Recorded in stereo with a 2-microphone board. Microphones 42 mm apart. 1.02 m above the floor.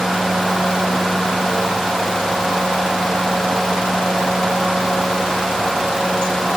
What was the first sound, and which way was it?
Only background noise.